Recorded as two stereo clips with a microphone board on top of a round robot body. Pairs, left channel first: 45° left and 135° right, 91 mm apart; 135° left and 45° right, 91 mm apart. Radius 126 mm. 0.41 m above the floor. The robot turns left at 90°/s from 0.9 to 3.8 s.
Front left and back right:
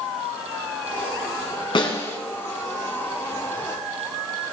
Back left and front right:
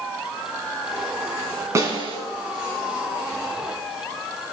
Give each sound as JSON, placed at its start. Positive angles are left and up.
{"t": 1.8, "sound": "a snare drum", "azimuth_deg": 10, "distance_m": 3.5}